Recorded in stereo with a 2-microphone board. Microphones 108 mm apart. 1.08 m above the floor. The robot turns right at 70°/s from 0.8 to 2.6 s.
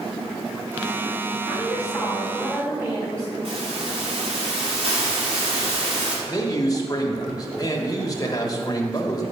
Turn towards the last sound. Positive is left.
turn(degrees=35)  # may be behind; listen again after turning